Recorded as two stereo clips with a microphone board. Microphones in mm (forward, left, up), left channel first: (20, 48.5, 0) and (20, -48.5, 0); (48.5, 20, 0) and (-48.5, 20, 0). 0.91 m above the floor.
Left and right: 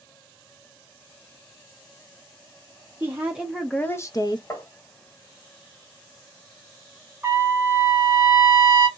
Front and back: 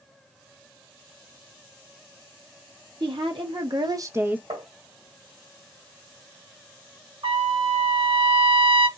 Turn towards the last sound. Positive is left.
turn(degrees=-155)